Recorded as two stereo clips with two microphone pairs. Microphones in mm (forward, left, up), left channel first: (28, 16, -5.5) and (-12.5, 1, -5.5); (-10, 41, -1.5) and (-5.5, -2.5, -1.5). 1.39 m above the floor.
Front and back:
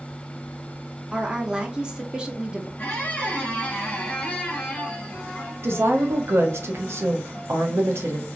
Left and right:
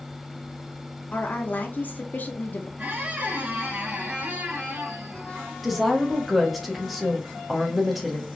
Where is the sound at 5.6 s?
175° right, 0.7 m.